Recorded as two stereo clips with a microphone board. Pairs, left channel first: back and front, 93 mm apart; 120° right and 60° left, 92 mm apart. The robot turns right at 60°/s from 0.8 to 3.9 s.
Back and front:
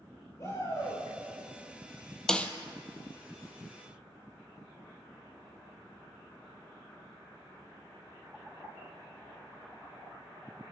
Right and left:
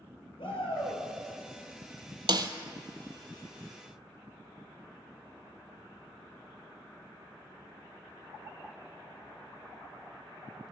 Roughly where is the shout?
Behind right.